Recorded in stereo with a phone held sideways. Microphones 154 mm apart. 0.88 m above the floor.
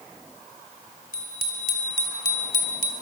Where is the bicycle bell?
75° right (ahead or behind), 3.5 m; by 2.9 s 65° right (ahead or behind), 3 m.